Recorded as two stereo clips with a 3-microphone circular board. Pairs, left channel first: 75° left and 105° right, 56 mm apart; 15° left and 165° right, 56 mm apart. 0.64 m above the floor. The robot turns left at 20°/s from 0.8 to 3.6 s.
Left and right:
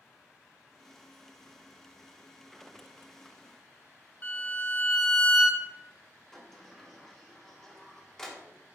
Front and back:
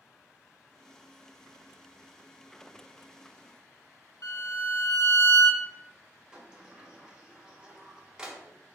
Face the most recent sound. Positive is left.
turn(degrees=140)